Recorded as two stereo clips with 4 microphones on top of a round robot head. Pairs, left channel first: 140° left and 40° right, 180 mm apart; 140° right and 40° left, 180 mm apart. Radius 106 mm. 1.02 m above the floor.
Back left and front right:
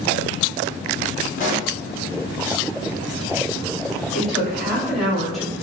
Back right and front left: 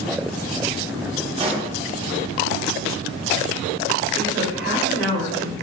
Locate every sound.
1.4 s a pop: 95° left, 1.2 m
4.1 s a woman speaking: 50° left, 2 m